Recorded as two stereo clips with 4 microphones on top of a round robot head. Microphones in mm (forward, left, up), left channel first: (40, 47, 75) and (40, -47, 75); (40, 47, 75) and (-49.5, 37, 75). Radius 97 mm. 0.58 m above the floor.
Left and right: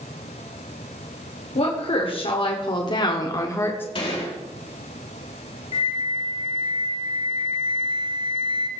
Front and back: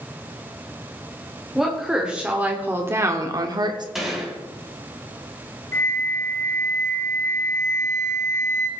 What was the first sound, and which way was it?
A woman speaking, 100° left.